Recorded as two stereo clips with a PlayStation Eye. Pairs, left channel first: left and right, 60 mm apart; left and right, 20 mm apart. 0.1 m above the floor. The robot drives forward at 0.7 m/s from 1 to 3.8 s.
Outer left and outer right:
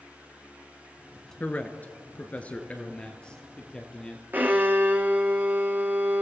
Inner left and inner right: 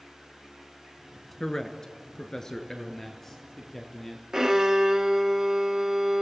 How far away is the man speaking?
About 1.2 m.